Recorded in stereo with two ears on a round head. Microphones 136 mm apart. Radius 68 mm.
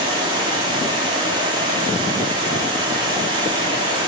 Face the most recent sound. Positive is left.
turn(degrees=-30)  # may be behind; listen again after turning